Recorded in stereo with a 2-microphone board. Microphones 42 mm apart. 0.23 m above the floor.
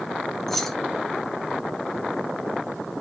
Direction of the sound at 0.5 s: 5° left (ahead or behind).